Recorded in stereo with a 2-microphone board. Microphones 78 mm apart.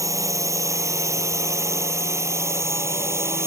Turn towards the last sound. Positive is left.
turn(degrees=-35)  # may be behind; listen again after turning